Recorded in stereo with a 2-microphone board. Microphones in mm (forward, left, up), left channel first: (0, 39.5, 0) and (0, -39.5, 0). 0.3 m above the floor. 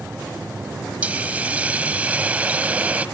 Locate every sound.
1.0 s a hiss: 20° right (ahead or behind), 1.0 m